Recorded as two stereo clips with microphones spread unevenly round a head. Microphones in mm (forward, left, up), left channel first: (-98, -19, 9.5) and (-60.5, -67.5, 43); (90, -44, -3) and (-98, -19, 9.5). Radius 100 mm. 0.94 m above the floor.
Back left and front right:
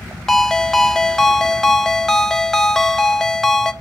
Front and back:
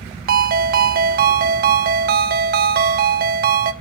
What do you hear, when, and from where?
0.3 s a ringtone: 145° right, 0.8 m